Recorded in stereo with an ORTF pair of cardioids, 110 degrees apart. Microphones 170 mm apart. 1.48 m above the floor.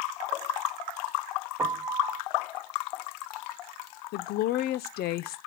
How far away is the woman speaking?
About 0.7 m.